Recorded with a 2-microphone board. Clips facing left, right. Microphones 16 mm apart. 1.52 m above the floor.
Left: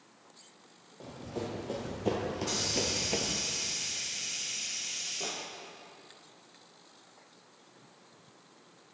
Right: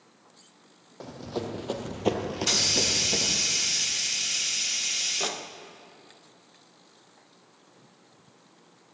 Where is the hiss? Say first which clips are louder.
Right 8 dB; 60° right (ahead or behind), 1.0 m.